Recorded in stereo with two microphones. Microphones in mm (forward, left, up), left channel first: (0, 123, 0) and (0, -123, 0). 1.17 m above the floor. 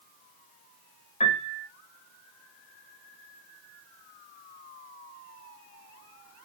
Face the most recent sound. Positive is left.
turn(degrees=30)  # may be behind; listen again after turning